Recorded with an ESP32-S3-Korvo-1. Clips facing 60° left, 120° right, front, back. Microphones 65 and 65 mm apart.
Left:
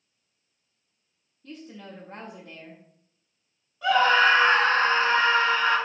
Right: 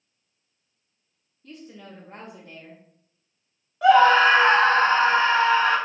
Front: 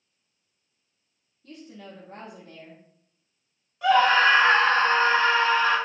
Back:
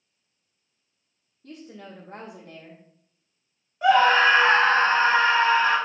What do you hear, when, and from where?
1.4 s a woman speaking: 145° left, 1.7 m
3.8 s a scream: 115° right, 4 m